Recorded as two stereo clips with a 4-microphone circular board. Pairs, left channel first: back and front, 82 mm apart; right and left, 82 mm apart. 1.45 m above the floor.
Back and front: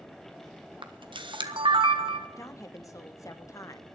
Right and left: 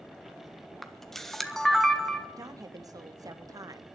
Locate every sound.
0.8 s a camera shutter: 5° right, 1.3 m
2.4 s a woman speaking: 135° left, 1.2 m